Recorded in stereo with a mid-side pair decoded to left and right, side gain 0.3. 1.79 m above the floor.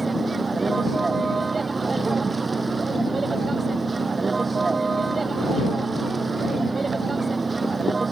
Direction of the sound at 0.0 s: 40° right.